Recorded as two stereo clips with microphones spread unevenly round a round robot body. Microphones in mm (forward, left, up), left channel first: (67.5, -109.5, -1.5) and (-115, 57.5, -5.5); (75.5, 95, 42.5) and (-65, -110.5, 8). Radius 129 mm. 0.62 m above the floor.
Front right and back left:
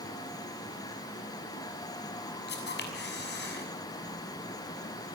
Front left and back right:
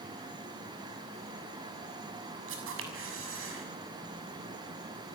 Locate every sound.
2.5 s a camera shutter: 90° right, 6.5 m